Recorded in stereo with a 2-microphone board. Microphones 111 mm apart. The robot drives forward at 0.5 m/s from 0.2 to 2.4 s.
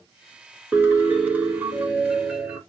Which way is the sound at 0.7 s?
20° right (ahead or behind).